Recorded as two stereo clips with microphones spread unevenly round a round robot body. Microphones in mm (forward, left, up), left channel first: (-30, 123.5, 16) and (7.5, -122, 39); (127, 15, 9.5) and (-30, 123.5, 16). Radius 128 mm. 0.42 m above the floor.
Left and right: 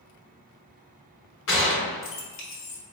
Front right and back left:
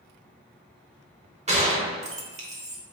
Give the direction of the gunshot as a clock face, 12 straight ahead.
9 o'clock.